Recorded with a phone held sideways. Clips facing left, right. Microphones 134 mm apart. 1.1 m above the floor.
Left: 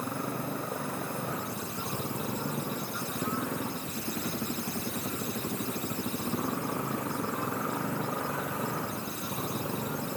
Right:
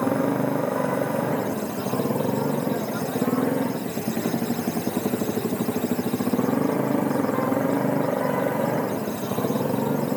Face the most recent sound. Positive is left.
turn(degrees=-80)